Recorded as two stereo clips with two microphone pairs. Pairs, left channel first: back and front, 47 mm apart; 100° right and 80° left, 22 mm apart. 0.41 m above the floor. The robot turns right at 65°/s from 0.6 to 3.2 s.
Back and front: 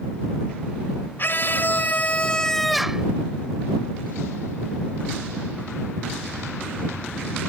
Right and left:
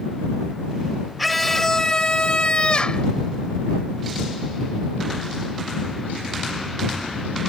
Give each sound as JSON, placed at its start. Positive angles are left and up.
{"t": 1.2, "sound": "a scream", "azimuth_deg": 165}